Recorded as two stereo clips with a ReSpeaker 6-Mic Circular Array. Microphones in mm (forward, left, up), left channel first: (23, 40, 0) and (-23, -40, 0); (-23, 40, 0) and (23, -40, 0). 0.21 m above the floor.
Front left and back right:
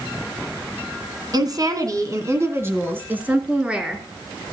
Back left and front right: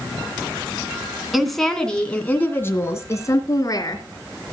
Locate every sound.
1.3 s a woman speaking: 145° right, 1.7 m; by 4.0 s 160° left, 2.5 m